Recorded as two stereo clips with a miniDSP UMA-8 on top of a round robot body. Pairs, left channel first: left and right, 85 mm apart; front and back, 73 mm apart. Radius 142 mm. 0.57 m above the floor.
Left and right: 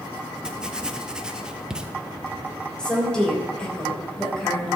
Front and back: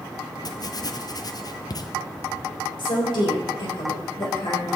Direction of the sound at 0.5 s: 10° right.